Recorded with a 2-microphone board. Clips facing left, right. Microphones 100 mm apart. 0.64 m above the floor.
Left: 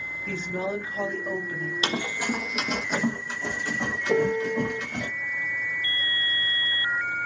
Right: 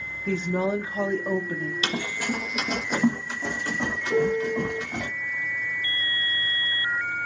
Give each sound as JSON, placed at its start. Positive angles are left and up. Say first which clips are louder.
{"t": 0.3, "sound": "a woman speaking", "louder": "right 5 dB", "side_deg": -30, "distance_m": 0.7}
{"t": 1.8, "sound": "running footsteps", "louder": "left 3 dB", "side_deg": 30, "distance_m": 0.8}
{"t": 4.1, "sound": "a piano", "louder": "even", "side_deg": 75, "distance_m": 0.8}